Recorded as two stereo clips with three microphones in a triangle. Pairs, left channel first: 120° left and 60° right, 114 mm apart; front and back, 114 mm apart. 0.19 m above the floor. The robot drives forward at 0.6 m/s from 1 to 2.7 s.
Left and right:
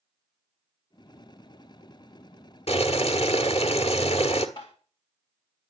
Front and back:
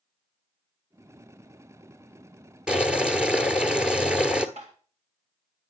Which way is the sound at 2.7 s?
100° left.